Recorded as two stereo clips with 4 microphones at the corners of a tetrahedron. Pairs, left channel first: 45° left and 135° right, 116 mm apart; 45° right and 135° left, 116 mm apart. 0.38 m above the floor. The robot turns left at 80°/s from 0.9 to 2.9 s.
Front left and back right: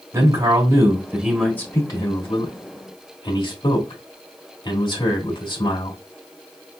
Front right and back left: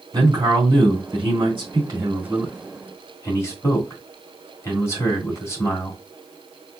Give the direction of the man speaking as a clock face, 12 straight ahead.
6 o'clock.